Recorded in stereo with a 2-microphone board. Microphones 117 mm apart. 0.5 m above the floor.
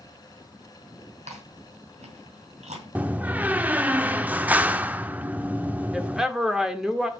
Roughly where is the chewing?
Right.